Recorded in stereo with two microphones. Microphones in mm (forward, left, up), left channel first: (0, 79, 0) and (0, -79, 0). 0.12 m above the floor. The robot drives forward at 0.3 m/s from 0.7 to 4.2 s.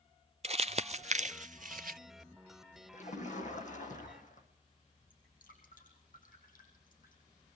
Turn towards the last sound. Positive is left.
turn(degrees=60)  # may be behind; listen again after turning